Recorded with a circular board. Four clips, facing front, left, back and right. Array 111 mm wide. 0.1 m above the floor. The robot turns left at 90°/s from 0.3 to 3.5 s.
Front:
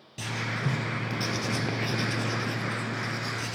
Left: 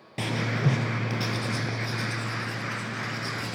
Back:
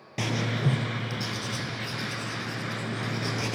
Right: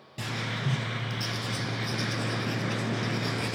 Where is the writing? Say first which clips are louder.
Left 6 dB, back 4 dB; 140° left, 0.7 m; by 3.6 s 150° right, 0.7 m.